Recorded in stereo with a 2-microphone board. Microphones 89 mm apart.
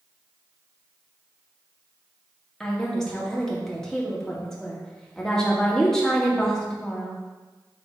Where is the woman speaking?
10° left (ahead or behind), 1.7 m.